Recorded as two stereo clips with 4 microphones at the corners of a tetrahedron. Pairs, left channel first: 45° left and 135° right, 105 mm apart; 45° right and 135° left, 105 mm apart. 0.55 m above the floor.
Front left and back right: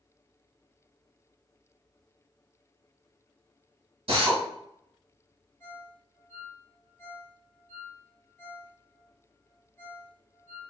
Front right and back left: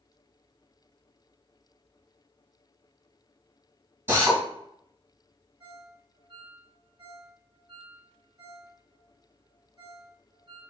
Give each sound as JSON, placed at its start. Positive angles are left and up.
{"t": 4.1, "sound": "a drill", "azimuth_deg": -155, "distance_m": 1.3}
{"t": 5.6, "sound": "a ringtone", "azimuth_deg": 110, "distance_m": 1.2}